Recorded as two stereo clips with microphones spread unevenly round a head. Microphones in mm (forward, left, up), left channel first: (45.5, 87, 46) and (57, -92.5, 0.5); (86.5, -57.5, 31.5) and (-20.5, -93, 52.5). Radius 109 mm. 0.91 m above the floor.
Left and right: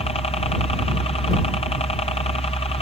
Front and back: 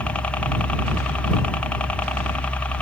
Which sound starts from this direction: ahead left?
A helicopter, at 0.0 s.